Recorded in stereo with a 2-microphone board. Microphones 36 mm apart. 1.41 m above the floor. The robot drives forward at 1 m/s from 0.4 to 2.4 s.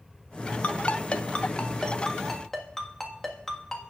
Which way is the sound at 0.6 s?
35° left (ahead or behind).